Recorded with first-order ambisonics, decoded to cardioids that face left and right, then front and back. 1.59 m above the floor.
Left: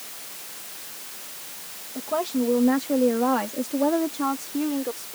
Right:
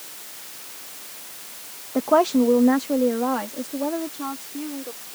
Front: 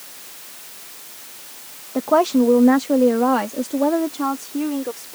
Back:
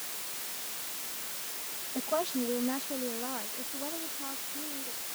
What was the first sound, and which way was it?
A woman speaking, 45° right.